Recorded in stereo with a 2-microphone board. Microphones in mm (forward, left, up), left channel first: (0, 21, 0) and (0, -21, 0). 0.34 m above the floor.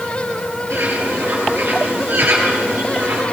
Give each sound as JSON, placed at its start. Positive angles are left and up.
{"t": 0.7, "sound": "a bird", "side_deg": -65, "distance_m": 8.0}